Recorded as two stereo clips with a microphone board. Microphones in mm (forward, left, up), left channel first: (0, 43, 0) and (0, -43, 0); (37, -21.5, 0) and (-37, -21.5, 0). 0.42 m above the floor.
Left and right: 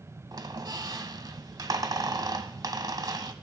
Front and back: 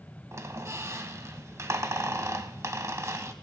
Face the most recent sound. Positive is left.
turn(degrees=-130)